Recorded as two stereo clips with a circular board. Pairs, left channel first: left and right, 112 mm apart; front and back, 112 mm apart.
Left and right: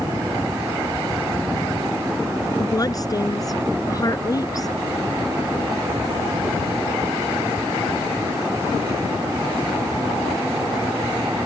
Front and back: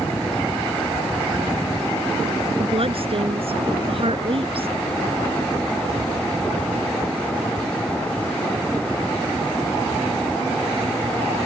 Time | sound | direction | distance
2.6 | a woman speaking | 145° left | ?